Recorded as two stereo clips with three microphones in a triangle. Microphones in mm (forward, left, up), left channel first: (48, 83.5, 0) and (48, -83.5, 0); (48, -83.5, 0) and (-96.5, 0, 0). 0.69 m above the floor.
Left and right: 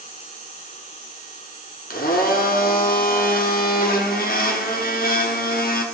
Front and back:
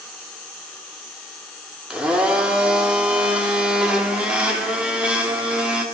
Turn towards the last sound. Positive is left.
turn(degrees=65)